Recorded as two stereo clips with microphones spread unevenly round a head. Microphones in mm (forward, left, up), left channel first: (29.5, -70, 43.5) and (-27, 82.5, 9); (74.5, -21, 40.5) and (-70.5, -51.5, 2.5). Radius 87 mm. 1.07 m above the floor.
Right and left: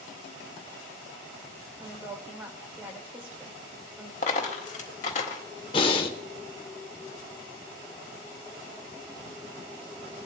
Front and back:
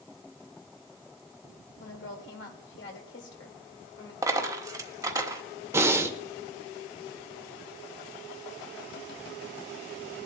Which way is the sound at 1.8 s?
30° left.